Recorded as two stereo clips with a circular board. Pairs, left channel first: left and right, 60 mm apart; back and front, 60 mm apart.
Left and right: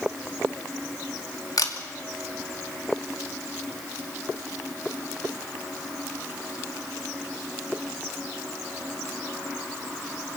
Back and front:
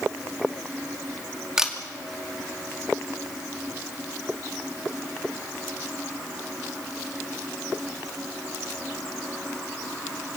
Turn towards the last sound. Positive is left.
turn(degrees=80)